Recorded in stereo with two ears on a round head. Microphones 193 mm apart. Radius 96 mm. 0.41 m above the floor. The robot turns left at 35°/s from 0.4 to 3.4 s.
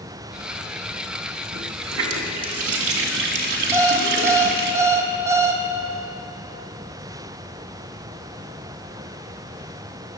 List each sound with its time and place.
1.5 s a running tap: 60° right, 2 m; by 4.7 s 125° right, 2 m
3.7 s an alarm clock: 15° right (ahead or behind), 1.7 m